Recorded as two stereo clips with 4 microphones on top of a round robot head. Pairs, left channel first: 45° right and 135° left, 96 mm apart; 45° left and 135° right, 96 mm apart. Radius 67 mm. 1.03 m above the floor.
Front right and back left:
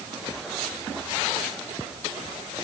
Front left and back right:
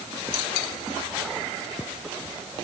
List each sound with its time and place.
Only background noise.